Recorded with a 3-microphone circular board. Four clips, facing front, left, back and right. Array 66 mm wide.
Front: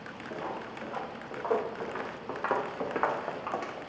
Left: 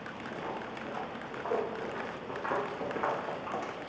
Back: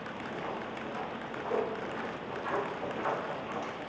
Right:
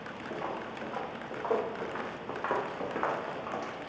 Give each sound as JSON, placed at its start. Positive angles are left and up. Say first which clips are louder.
{"t": 0.3, "sound": "footsteps", "louder": "right 2 dB, front 2 dB", "azimuth_deg": -60, "distance_m": 4.0}